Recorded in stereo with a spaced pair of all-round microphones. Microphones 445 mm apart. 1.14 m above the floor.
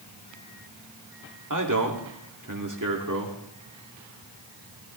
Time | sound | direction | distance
1.5 | a man speaking | 40° right (ahead or behind) | 2.5 m